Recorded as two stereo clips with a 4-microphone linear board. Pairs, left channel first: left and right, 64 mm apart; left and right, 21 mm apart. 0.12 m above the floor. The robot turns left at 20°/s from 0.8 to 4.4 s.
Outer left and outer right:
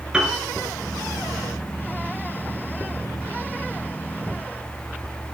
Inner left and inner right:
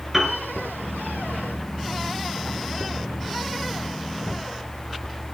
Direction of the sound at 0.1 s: 15° right (ahead or behind).